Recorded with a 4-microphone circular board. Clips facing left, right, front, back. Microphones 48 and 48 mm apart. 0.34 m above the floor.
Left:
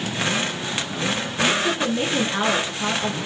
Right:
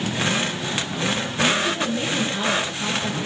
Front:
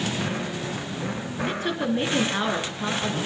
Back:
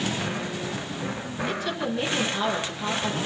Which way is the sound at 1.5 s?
45° left.